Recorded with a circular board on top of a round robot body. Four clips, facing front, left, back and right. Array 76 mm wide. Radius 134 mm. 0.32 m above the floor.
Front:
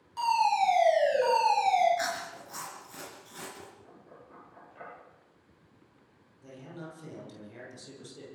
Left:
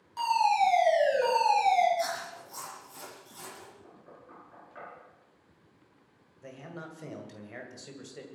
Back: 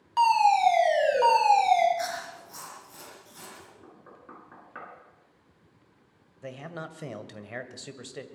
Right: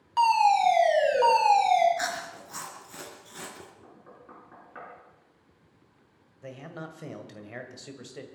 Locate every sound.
0.2 s a fire alarm: 140° right, 5.5 m
2.0 s chewing: 70° right, 3.5 m
3.8 s knocking: 160° right, 4.5 m
6.4 s a man speaking: 170° right, 2 m